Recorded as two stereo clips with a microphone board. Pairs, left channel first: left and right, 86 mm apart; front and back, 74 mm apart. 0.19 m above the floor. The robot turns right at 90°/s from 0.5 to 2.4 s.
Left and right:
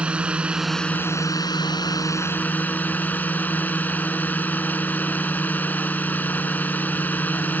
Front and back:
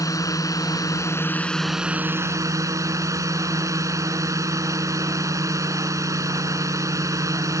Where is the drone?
15° right; by 7.6 s 155° left.